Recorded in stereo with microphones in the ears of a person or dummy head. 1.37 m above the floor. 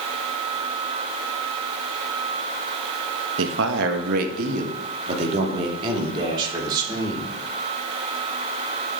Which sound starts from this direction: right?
A man speaking, at 3.4 s.